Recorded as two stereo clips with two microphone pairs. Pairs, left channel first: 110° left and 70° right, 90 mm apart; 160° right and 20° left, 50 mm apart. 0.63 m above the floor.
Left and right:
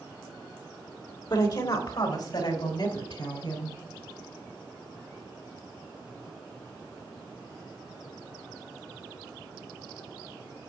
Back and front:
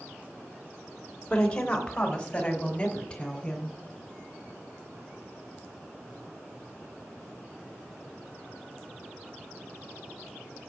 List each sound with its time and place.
1.3 s a woman speaking: 130° left, 2.5 m